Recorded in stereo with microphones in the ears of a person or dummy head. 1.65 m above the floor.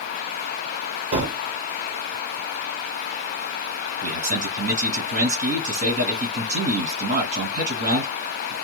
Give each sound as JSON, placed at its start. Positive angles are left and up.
{"t": 1.1, "sound": "a gunshot", "side_deg": -50, "distance_m": 1.3}
{"t": 4.0, "sound": "a man speaking", "side_deg": -40, "distance_m": 2.0}